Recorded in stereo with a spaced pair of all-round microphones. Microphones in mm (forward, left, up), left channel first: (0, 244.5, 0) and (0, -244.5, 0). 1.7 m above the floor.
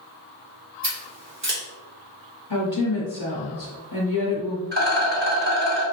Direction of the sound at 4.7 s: 20° right (ahead or behind).